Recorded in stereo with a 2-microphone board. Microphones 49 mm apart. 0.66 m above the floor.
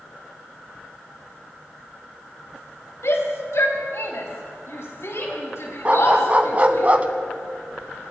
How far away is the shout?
About 4.5 m.